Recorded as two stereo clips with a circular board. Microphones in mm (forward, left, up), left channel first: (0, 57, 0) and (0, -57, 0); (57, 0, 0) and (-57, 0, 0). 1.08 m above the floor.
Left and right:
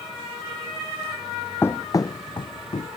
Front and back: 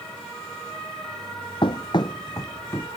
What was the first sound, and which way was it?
Running footsteps, 25° left.